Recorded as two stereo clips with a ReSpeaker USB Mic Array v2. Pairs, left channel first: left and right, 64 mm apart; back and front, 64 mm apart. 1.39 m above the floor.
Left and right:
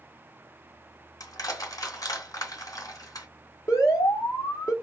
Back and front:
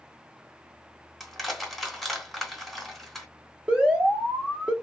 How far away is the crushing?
About 2.5 m.